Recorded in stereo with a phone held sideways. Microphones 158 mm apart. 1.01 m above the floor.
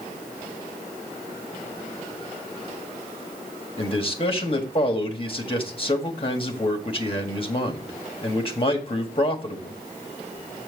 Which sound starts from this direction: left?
A man speaking, at 3.8 s.